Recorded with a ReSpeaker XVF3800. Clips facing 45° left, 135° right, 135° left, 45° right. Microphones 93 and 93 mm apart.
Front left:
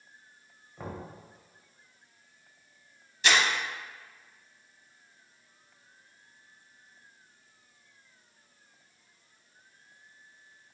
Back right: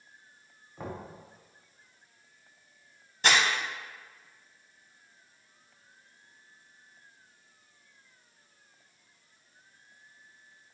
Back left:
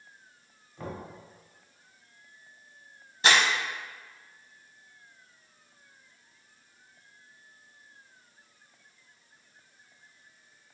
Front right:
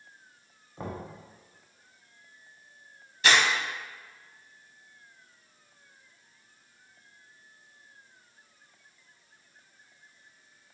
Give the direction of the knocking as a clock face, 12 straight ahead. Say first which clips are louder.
Back right 1 dB, front right 1 dB; 2 o'clock.